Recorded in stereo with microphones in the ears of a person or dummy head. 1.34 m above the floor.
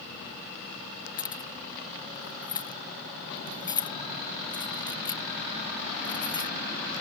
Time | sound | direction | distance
1.2 | keys jangling | 20° left (ahead or behind) | ?